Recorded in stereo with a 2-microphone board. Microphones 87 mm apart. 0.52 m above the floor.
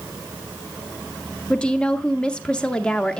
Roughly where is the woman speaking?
Centre.